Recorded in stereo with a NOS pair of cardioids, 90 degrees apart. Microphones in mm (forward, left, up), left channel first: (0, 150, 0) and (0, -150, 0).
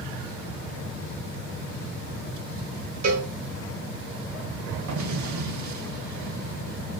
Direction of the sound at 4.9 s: 70° right.